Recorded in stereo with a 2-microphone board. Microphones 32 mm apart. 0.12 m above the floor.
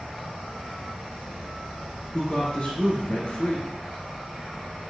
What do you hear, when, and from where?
0.0 s an insect: 35° right (ahead or behind), 1.7 m
2.1 s a woman speaking: 40° left (ahead or behind), 1.6 m